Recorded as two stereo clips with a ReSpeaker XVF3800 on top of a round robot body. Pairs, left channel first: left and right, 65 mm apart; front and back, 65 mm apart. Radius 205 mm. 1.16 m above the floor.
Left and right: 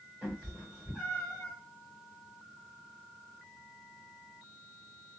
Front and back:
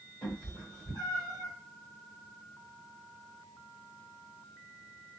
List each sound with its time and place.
0.2 s a cat meowing: 30° right, 1.0 m; by 1.5 s 45° left, 1.1 m